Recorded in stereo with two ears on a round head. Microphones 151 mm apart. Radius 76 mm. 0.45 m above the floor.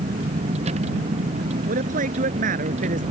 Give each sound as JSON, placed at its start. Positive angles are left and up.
{"t": 0.0, "sound": "a vehicle", "side_deg": -40}
{"t": 1.7, "sound": "a man speaking", "side_deg": -50}